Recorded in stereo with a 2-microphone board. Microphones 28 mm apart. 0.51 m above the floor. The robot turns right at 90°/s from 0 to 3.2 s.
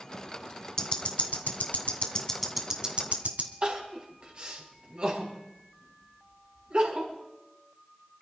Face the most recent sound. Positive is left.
turn(degrees=-40)  # may be behind; listen again after turning